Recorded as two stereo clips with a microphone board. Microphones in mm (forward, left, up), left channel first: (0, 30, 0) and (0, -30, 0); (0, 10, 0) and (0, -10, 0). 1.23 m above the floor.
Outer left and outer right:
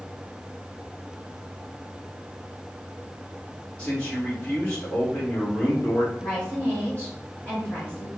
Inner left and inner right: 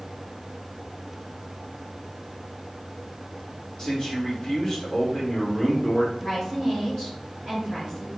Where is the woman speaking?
25° left (ahead or behind), 1.9 m.